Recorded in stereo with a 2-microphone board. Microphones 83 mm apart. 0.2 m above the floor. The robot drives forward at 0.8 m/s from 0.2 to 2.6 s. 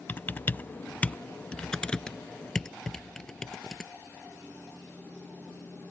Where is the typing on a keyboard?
25° left (ahead or behind); by 3.9 s 5° left (ahead or behind).